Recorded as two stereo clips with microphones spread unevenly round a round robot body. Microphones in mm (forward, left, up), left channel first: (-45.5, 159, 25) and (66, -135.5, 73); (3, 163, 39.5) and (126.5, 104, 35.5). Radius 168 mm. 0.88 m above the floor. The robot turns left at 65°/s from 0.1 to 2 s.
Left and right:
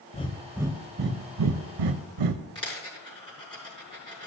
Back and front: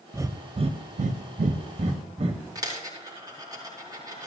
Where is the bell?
I don't hear a bell.